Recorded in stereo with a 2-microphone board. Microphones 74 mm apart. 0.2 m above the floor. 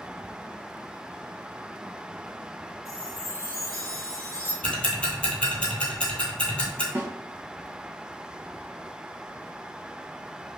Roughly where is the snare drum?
Right.